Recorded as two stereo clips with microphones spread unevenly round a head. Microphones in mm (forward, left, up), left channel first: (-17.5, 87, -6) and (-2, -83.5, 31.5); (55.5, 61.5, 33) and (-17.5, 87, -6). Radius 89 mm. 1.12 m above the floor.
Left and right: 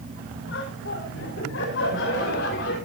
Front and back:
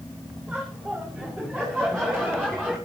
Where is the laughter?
80° left, 6 m; by 2.8 s 65° left, 7 m.